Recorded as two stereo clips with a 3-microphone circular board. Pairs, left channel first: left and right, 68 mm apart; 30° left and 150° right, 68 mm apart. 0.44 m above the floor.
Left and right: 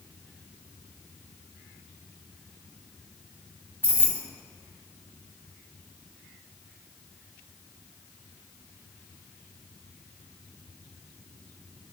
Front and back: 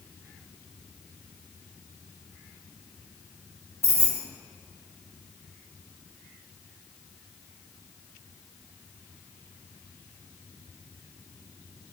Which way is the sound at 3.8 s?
135° right.